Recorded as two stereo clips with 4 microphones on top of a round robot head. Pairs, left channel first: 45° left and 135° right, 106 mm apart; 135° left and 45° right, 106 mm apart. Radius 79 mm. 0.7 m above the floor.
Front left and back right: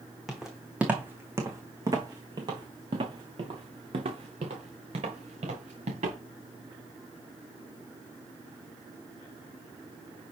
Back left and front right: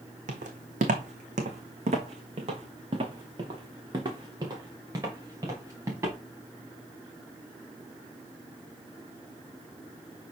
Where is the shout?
I don't hear a shout.